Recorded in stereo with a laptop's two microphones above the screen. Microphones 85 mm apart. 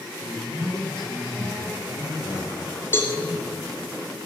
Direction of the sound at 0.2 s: 75° left (ahead or behind).